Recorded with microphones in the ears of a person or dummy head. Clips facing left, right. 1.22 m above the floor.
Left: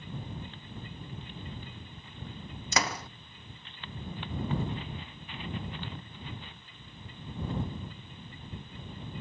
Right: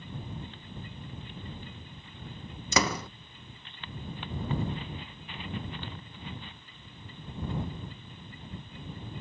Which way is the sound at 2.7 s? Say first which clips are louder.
Right 4 dB; 75° right (ahead or behind).